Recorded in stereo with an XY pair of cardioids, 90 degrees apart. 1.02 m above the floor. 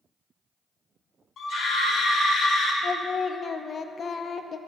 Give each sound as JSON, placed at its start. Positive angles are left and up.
{"t": 1.4, "sound": "a scream", "azimuth_deg": 60, "distance_m": 2.5}
{"t": 2.8, "sound": "singing", "azimuth_deg": 45, "distance_m": 0.5}